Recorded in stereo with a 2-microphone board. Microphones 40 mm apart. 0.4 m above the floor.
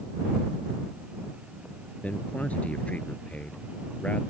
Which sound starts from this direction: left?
A man speaking, at 2.0 s.